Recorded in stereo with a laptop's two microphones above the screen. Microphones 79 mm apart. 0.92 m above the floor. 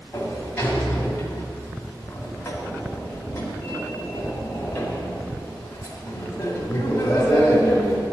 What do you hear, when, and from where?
0.1 s a sliding door: 25° left (ahead or behind), 1.8 m